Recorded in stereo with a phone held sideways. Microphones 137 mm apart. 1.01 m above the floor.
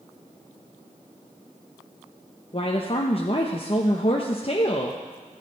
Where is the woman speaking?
45° left (ahead or behind), 0.8 m.